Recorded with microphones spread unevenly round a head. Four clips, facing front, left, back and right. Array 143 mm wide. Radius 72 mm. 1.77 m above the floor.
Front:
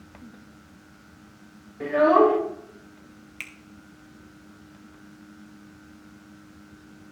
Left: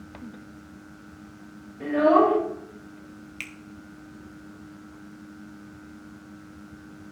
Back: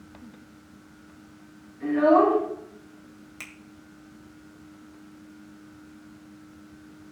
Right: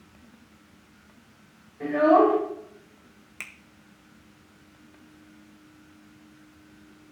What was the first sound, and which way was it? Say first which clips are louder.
A child speaking: even, front 1 dB; 5° right.